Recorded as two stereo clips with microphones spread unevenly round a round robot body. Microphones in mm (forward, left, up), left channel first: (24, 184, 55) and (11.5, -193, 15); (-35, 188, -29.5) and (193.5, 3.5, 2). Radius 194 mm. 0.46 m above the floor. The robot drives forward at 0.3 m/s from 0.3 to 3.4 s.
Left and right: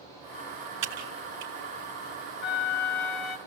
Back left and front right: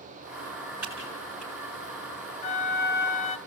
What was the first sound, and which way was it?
Typing on a keyboard, 125° right.